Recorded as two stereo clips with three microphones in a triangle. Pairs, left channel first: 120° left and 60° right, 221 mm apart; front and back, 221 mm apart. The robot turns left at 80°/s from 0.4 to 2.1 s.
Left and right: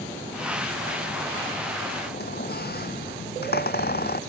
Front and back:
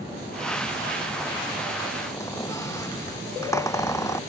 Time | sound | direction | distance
2.1 | a squeak | 75° left | ?